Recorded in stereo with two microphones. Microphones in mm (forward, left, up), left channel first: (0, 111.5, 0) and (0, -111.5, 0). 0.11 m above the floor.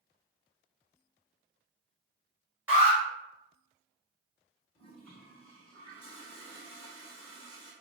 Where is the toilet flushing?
25° left (ahead or behind), 1.0 m.